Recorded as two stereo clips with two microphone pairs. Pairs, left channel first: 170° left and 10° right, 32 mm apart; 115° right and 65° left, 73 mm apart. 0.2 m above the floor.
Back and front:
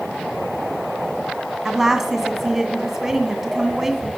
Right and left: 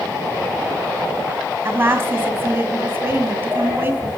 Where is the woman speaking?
60° left, 1.7 m.